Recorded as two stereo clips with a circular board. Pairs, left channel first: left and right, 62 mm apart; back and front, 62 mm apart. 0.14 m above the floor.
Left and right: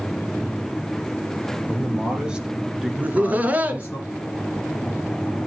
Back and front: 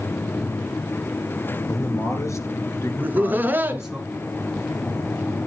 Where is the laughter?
40° right, 1.6 m.